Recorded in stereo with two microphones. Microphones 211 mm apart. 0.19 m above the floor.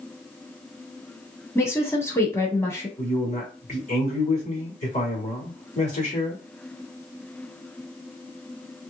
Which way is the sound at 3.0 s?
40° left (ahead or behind).